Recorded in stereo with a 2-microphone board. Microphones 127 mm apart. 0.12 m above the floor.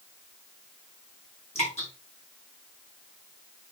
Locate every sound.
1.6 s dripping: 60° left (ahead or behind), 7.5 m